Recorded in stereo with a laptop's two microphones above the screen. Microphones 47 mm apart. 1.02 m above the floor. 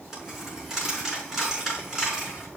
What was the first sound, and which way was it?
A dropped coin, 5° right (ahead or behind).